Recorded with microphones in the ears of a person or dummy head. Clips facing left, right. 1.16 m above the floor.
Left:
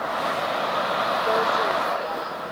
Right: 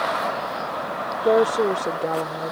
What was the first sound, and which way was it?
A woman speaking, 50° right (ahead or behind).